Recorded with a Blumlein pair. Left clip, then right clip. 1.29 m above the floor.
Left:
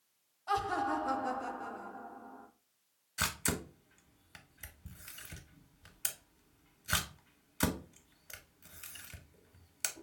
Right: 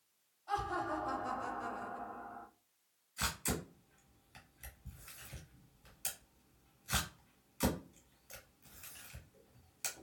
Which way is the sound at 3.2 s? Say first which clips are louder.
Left 3 dB; 25° left.